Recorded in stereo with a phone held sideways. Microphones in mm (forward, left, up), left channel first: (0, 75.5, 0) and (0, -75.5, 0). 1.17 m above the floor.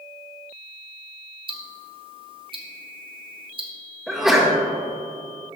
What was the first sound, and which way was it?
Ticking, 35° right (ahead or behind).